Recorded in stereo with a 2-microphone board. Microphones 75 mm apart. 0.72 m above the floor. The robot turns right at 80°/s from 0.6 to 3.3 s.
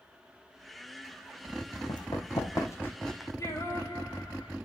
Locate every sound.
1.9 s running footsteps: 65° left (ahead or behind), 2.5 m; by 3.3 s 10° right (ahead or behind), 1.9 m
3.4 s singing: 35° left (ahead or behind), 8 m